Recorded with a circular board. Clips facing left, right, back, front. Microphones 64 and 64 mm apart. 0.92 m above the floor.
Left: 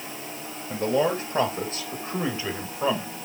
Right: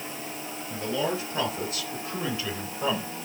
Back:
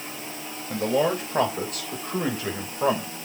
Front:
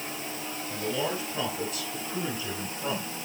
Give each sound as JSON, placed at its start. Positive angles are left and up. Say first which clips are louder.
{"t": 0.7, "sound": "a man speaking", "louder": "left 6 dB, back 8 dB", "azimuth_deg": 135, "distance_m": 4.0}